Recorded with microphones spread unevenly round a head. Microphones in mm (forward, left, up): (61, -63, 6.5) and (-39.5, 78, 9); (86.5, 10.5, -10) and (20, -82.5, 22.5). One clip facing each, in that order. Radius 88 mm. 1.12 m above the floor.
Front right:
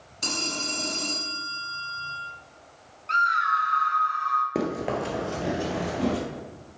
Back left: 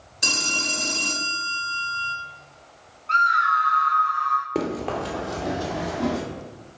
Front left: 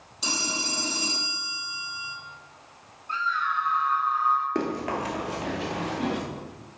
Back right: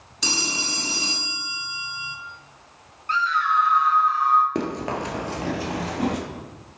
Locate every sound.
0.2 s a phone ringing: 155° right, 1.5 m
3.1 s a scream: 120° right, 1.6 m
4.5 s running footsteps: 135° right, 1.2 m; by 6.2 s 110° right, 2 m